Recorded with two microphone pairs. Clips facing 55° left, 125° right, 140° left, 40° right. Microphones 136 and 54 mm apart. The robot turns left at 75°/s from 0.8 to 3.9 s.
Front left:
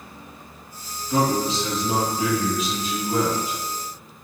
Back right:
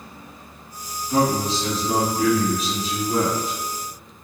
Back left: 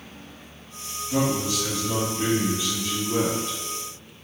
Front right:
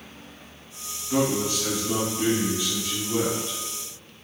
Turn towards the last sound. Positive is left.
turn(degrees=90)